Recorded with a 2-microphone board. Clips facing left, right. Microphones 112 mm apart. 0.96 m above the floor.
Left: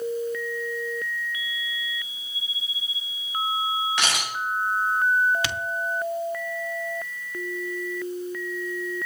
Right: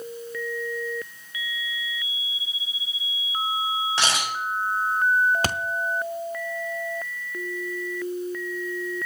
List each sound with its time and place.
4.0 s a camera shutter: 30° right (ahead or behind), 6 m
5.4 s a thud: 40° right (ahead or behind), 0.6 m